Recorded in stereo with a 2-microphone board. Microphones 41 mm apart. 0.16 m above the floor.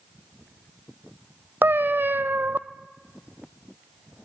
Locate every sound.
1.6 s a cat meowing: 55° right (ahead or behind), 0.5 m